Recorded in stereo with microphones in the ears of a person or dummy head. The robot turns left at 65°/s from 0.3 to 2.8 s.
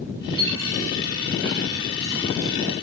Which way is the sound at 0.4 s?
30° right (ahead or behind).